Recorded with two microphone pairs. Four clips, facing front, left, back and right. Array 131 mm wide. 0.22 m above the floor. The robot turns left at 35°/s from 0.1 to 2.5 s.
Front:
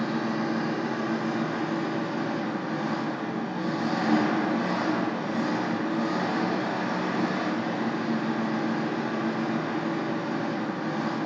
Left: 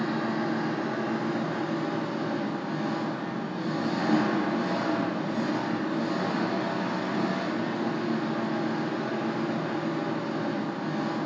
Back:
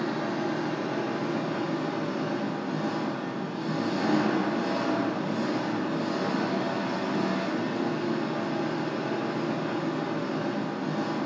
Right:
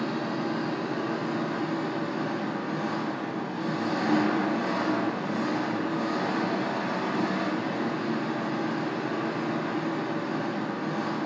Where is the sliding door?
No sliding door in this recording.